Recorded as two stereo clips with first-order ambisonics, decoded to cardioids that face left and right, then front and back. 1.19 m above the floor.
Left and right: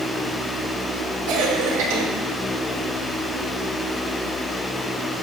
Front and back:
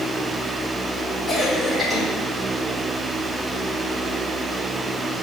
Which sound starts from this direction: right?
A cough, at 1.3 s.